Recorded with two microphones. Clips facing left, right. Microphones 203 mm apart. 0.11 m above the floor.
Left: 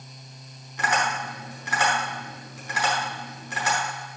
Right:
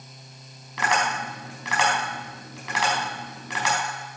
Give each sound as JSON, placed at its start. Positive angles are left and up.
{"t": 0.8, "sound": "tapping", "side_deg": -85, "distance_m": 4.0}